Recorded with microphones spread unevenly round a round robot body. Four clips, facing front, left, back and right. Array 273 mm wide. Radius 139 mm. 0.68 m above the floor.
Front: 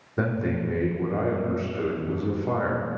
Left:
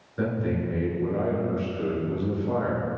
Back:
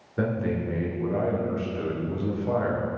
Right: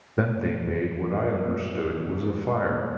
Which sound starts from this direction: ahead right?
A man speaking, at 0.2 s.